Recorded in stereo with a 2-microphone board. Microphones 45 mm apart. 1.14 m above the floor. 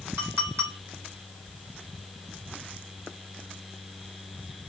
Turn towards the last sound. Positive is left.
turn(degrees=-70)  # may be behind; listen again after turning